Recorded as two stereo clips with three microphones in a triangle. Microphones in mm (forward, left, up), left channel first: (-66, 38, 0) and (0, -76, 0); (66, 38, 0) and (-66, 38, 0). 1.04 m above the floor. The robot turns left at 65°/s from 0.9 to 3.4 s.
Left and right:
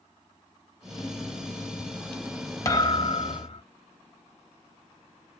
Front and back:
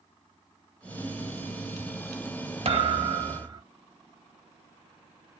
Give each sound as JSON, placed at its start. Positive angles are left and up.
{"t": 2.6, "sound": "a thud", "azimuth_deg": 175, "distance_m": 0.7}